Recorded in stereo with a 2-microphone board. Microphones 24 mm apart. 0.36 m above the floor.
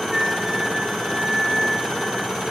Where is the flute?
20° right (ahead or behind), 1.0 m.